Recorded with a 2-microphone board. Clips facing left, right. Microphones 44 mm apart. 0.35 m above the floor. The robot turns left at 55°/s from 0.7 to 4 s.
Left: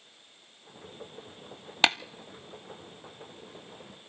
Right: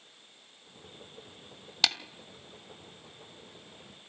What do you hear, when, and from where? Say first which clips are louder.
1.8 s tapping: left 5 dB; 35° left (ahead or behind), 0.6 m; by 2.0 s 40° left (ahead or behind), 0.6 m